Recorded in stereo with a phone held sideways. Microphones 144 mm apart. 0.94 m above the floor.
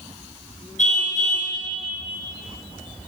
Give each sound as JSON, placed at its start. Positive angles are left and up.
{"t": 0.8, "sound": "a car horn", "side_deg": 60, "distance_m": 5.5}